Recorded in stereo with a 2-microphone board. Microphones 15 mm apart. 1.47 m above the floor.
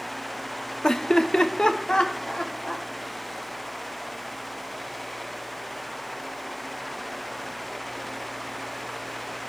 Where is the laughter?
50° left (ahead or behind), 0.5 m; by 2.9 s 75° left (ahead or behind), 1.5 m.